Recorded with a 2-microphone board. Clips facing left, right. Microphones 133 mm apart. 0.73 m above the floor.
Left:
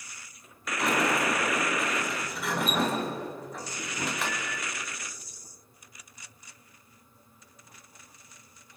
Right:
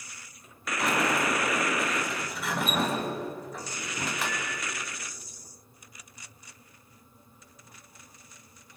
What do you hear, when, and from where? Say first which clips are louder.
0.8 s a sliding door: left 1 dB; centre (ahead or behind), 3 m